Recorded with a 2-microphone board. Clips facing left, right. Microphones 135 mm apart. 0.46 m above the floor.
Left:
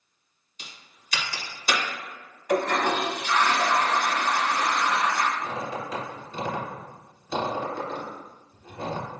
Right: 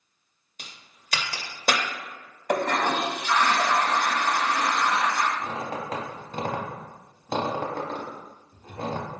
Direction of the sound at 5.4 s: 60° right (ahead or behind).